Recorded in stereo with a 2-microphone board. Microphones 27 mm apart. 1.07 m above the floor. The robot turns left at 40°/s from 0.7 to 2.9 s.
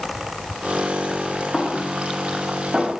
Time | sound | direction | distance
1.5 | a snare drum | 25° left (ahead or behind) | 3.5 m